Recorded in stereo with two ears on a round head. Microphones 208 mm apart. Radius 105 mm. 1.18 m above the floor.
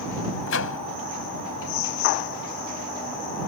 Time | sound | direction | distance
0.5 | a microwave | 60° left (ahead or behind) | ?